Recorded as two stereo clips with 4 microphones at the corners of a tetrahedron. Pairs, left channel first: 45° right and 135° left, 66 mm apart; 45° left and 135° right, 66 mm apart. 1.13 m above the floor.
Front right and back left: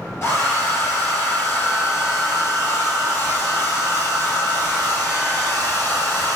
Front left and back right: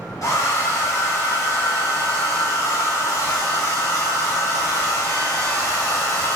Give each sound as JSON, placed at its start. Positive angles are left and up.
{"t": 0.2, "sound": "a hair dryer", "azimuth_deg": 5, "distance_m": 1.0}